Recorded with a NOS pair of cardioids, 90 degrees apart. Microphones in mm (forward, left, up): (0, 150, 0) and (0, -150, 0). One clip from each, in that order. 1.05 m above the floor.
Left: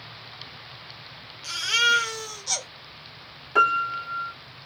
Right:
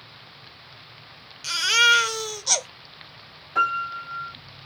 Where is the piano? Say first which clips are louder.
Left 3 dB; 60° left, 1.7 m.